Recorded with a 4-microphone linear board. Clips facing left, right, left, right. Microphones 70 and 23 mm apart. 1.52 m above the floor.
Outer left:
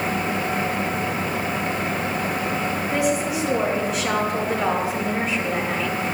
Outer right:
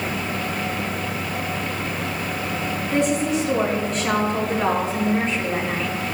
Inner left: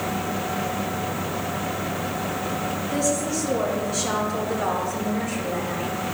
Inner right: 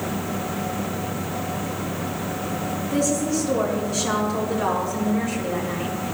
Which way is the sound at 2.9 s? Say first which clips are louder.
Outer right 3 dB, inner right 3 dB; 5° left (ahead or behind).